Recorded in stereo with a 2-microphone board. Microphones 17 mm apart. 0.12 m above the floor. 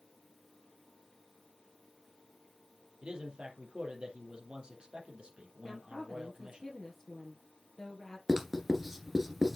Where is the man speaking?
65° right (ahead or behind), 3.5 m.